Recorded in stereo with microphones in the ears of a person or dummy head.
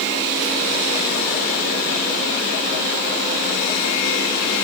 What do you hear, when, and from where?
Only background noise.